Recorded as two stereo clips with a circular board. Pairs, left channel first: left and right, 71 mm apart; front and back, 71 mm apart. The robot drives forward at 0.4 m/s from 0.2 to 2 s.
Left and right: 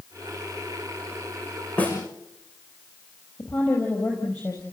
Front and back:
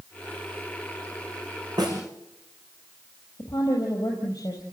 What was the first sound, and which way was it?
A snare drum, 160° left.